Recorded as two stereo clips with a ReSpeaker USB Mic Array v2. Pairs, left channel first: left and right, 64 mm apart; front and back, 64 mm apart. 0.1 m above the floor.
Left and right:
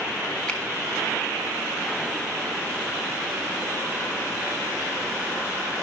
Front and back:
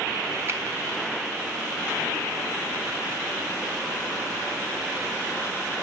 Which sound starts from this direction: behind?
A finger snap, at 0.5 s.